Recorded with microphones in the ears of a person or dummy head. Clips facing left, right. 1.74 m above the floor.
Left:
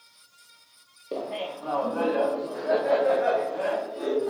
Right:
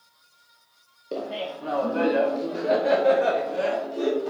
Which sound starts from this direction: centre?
Laughter, at 1.1 s.